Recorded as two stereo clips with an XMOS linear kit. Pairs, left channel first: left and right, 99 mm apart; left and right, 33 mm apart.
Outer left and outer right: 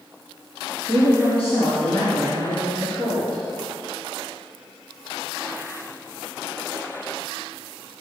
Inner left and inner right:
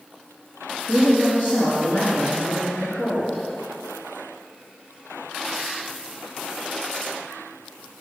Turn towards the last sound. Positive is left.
turn(degrees=25)  # may be behind; listen again after turning